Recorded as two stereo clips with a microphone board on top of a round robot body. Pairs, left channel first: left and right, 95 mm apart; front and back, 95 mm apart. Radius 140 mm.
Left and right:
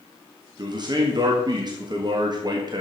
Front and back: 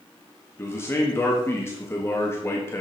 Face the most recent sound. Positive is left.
turn(degrees=-60)